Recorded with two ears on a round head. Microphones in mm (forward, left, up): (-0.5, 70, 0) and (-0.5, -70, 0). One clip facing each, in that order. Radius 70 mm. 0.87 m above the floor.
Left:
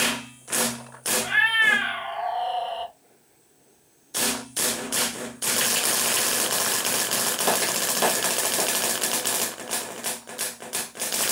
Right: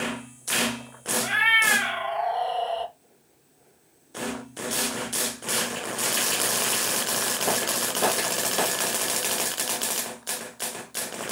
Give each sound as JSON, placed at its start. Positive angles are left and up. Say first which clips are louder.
{"t": 1.2, "sound": "a cat meowing", "louder": "even", "side_deg": -75, "distance_m": 1.4}